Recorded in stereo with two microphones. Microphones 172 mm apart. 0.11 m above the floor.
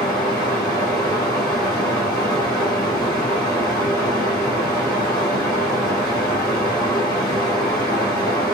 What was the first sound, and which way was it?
Running water, 20° left (ahead or behind).